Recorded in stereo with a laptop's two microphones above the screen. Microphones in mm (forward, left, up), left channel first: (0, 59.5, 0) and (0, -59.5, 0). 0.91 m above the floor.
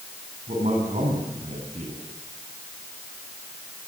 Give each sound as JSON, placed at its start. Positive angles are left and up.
{"t": 0.5, "sound": "a man speaking", "side_deg": -75, "distance_m": 9.0}